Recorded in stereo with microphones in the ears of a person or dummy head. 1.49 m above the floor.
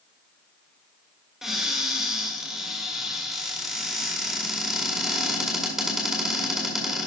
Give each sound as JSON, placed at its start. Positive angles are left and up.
{"t": 1.4, "sound": "a cupboard door", "side_deg": 0, "distance_m": 1.8}